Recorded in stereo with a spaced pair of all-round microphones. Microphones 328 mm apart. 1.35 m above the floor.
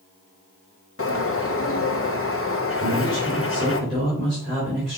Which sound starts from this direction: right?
A man speaking, at 2.8 s.